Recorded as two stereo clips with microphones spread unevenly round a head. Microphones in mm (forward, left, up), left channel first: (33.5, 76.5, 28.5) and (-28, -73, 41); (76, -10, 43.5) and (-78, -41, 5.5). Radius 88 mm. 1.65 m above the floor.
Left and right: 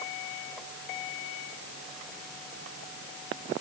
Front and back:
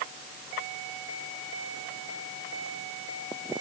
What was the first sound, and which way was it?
Only background noise.